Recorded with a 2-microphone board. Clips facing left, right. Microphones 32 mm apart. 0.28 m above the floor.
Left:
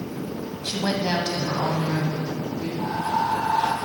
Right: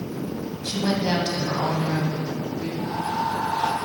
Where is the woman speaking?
25° left (ahead or behind), 1.9 m; by 2.7 s 25° right (ahead or behind), 3.5 m.